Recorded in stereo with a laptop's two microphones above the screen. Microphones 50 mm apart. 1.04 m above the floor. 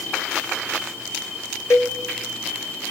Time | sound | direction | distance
1.7 | a cowbell | 70° left (ahead or behind) | 2.5 m